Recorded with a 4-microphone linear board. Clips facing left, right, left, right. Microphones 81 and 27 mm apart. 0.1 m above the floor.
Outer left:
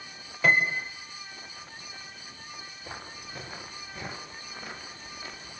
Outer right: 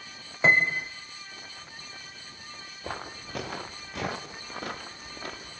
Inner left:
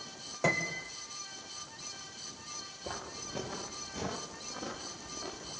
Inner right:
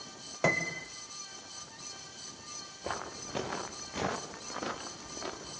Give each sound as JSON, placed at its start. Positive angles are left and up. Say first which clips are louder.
{"t": 0.4, "sound": "a piano", "louder": "outer right 1 dB, inner right 1 dB", "side_deg": -25, "distance_m": 2.5}
{"t": 2.8, "sound": "footsteps", "louder": "outer right 7 dB, inner right 5 dB", "side_deg": -70, "distance_m": 2.5}